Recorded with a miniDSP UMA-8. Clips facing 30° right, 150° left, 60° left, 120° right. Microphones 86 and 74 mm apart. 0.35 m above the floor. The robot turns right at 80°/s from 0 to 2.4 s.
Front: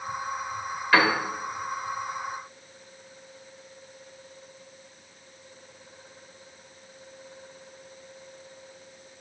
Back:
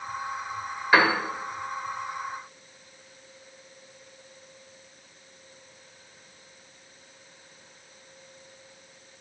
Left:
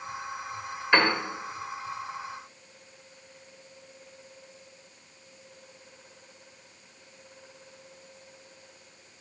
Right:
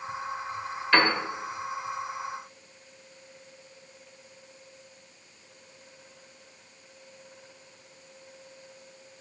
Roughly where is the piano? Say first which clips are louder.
Back 1 dB, even; left.